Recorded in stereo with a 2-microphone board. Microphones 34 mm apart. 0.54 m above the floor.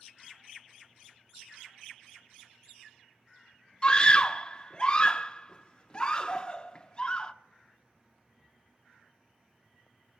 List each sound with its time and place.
3.8 s a scream: 25° left (ahead or behind), 0.7 m